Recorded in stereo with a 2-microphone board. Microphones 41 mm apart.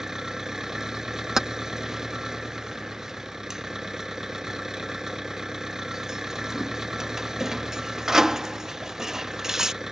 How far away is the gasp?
I don't hear a gasp.